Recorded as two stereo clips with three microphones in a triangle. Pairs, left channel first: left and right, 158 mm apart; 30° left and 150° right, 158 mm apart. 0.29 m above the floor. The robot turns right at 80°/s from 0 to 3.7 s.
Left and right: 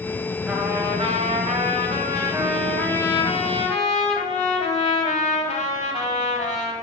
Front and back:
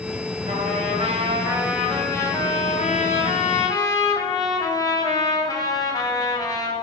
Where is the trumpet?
175° right, 1.3 m; by 6.7 s 85° left, 1.3 m.